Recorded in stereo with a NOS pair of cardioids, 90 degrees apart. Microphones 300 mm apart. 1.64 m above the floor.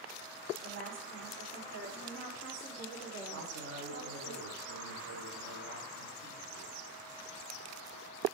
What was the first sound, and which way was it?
A woman speaking, 35° right.